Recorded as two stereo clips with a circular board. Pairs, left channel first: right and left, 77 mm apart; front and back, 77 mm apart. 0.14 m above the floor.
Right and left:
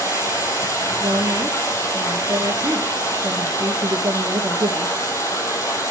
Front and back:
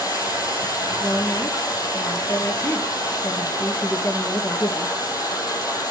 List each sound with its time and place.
0.0 s running water: 40° right, 3.5 m
1.0 s a woman speaking: 50° left, 2.5 m